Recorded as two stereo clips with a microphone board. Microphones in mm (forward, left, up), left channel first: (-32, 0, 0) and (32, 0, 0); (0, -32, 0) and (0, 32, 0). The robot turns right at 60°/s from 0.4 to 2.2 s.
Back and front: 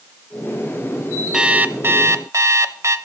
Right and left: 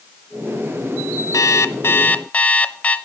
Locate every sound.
1.3 s an alarm clock: 80° right, 0.5 m; by 3.0 s 25° right, 0.5 m